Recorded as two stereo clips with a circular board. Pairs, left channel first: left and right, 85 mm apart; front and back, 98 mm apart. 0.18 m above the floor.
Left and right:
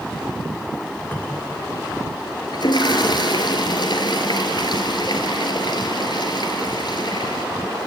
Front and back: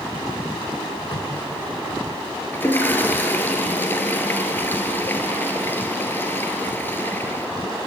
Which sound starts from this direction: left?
A toilet flushing, at 2.5 s.